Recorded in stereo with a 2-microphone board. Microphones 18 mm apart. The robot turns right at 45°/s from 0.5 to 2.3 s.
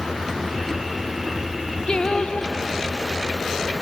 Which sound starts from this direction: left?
Singing, at 1.9 s.